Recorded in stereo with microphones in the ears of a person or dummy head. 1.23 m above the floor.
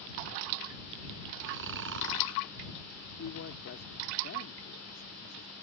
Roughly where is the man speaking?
Left.